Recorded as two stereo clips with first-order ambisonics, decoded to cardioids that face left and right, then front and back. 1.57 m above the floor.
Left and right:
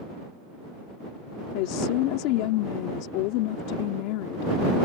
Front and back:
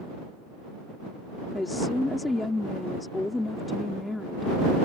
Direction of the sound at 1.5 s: 80° left.